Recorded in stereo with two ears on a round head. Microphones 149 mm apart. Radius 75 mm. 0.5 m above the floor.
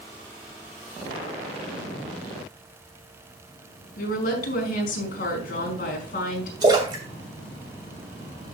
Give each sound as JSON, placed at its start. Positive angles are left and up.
{"t": 4.0, "sound": "a woman speaking", "side_deg": 55, "distance_m": 4.5}
{"t": 6.6, "sound": "a splash", "side_deg": -25, "distance_m": 2.5}